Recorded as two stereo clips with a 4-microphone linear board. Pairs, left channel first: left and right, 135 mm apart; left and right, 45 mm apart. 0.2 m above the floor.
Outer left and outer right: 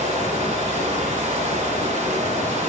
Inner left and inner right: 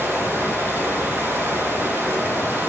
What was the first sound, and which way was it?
Running water, 60° right (ahead or behind).